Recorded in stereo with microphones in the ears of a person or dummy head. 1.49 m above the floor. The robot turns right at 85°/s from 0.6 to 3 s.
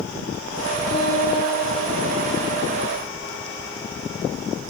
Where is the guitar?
30° left, 6 m; by 2.9 s 165° right, 6 m.